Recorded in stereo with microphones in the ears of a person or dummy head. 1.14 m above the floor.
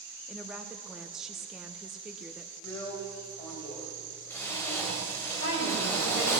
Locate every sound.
0.3 s a woman speaking: 5° right (ahead or behind), 0.7 m
2.6 s a drill: 15° left (ahead or behind), 2.5 m
5.4 s a woman speaking: 50° left (ahead or behind), 5 m